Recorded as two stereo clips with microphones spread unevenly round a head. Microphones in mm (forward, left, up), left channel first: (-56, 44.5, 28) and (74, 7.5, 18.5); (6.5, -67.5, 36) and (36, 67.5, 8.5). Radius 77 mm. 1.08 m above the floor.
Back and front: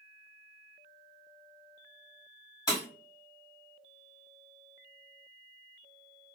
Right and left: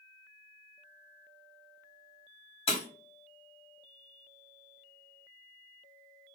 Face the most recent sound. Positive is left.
turn(degrees=-135)